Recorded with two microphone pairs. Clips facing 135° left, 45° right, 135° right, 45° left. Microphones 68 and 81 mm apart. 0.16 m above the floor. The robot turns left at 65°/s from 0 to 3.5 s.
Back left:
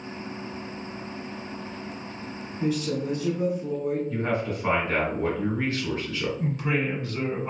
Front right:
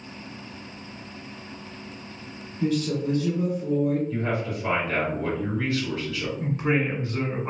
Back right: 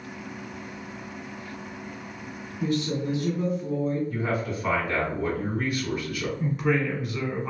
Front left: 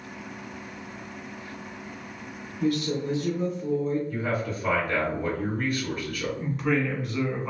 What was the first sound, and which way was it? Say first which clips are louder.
A woman speaking: front right 2 dB, front left 1 dB; 140° right.